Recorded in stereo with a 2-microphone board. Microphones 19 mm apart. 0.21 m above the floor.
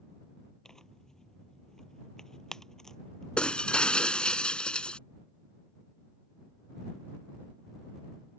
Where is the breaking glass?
60° left (ahead or behind).